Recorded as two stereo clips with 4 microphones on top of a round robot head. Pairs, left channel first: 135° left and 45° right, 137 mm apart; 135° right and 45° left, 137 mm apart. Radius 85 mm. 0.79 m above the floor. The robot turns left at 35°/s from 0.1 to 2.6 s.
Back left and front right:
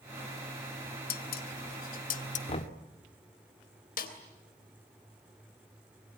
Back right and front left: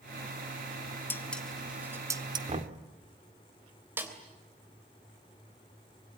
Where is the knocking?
90° left, 1.8 m; by 2.8 s 85° left, 1.8 m.